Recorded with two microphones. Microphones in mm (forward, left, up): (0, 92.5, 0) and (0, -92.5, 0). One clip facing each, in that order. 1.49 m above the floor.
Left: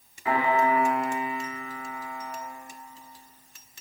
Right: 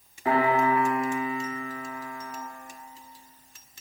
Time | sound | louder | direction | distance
0.2 | a piano | right 1 dB | 45° right (ahead or behind) | 1.6 m